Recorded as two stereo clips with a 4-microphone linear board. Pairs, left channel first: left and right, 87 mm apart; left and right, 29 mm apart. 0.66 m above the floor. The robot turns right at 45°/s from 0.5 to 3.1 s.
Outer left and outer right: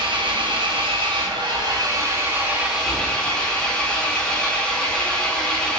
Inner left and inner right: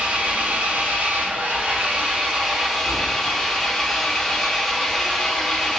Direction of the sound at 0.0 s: 110° right.